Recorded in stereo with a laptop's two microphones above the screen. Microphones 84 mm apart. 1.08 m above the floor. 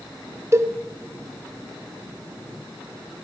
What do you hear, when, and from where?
0.5 s a cowbell: 35° right (ahead or behind), 2.5 m